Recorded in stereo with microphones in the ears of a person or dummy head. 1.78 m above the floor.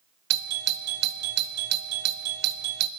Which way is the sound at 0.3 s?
65° right (ahead or behind).